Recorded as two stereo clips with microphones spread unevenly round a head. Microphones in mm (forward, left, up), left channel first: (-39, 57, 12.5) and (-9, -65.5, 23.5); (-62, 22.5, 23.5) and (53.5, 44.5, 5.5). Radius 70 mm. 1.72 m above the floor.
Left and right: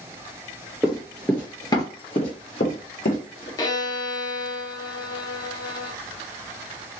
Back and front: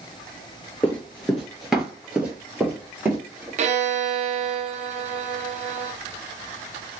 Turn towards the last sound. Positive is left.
turn(degrees=40)